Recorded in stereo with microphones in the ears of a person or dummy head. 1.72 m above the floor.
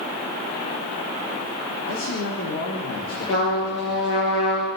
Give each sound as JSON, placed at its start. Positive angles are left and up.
{"t": 1.9, "sound": "a man speaking", "side_deg": 75, "distance_m": 3.5}
{"t": 3.3, "sound": "a trumpet", "side_deg": 70, "distance_m": 8.5}